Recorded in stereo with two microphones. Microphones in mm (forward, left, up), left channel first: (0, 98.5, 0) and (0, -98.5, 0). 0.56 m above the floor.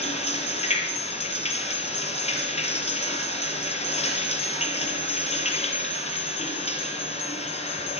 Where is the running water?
35° left (ahead or behind), 5 m.